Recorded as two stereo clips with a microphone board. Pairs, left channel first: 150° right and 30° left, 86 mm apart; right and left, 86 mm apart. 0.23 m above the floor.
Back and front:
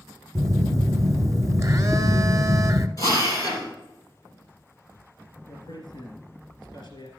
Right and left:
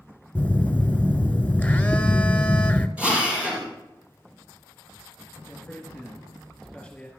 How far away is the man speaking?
About 3 m.